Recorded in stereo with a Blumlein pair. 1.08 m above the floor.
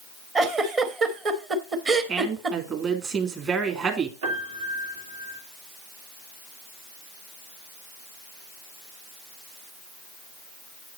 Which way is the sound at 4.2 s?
60° right.